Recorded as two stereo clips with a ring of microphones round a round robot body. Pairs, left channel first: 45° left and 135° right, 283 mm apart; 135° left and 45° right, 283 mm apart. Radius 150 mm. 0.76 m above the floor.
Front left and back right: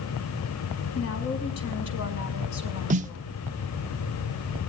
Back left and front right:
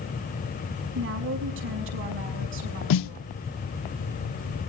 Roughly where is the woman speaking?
Ahead.